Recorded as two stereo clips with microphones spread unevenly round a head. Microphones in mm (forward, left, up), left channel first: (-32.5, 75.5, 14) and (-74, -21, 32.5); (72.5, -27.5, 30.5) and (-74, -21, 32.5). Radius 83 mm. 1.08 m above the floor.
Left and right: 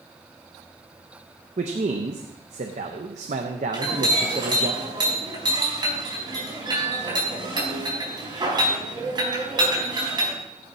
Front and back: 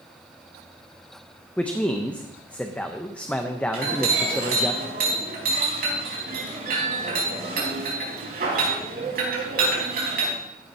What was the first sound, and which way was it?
A man speaking, 85° right.